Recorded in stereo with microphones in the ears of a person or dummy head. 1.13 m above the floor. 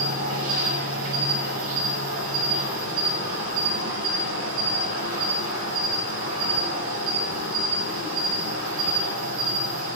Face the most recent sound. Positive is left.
turn(degrees=-85)